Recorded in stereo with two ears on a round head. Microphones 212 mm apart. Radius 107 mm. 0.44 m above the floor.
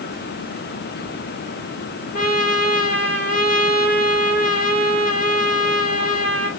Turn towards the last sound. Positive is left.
turn(degrees=40)  # may be behind; listen again after turning